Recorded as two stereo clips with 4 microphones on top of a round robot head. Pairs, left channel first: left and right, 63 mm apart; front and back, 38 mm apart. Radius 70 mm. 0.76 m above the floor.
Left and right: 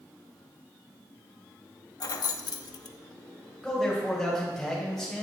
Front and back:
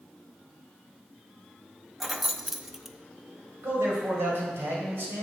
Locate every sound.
2.0 s keys jangling: 95° left, 0.7 m
3.6 s a man speaking: 175° left, 3.5 m